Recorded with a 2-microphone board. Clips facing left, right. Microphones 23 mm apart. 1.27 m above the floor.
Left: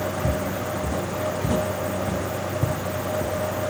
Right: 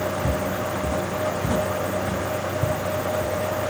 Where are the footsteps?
15° right (ahead or behind); by 3.4 s 30° left (ahead or behind).